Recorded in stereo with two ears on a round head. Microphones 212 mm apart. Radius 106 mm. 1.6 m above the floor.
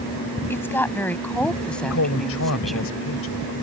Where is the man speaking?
65° left (ahead or behind).